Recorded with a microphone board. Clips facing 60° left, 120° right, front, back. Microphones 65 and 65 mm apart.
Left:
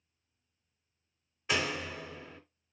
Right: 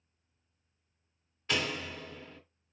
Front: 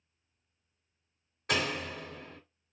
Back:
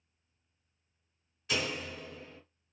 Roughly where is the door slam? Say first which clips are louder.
Left 1 dB, front 3 dB; ahead.